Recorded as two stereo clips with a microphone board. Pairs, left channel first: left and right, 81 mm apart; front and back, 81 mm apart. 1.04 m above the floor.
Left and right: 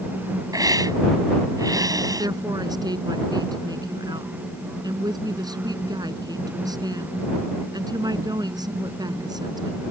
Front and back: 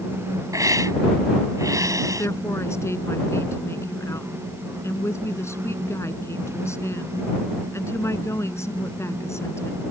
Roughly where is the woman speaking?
Ahead right.